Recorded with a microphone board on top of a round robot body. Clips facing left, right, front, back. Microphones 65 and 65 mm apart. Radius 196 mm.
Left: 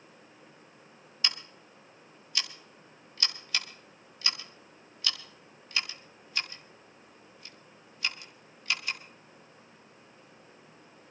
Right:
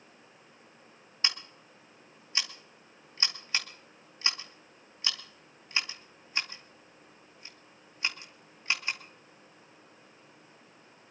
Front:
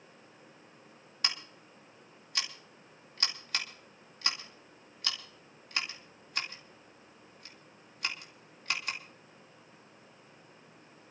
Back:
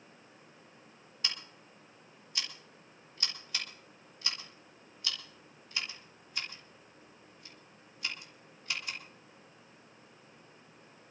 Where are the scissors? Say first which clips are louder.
Right 1 dB, front 3 dB; 30° right, 2 m.